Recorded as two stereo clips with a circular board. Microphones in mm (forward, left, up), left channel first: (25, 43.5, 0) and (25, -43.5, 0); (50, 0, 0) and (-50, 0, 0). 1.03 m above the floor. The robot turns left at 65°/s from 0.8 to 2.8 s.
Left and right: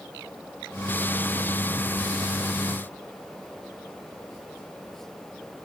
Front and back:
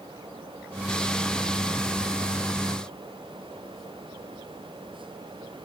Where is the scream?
I don't hear a scream.